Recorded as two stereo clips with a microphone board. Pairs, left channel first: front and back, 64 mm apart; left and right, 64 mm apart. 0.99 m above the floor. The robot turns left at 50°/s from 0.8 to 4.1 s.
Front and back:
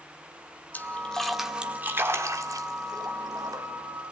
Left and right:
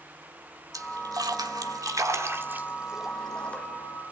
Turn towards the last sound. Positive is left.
turn(degrees=130)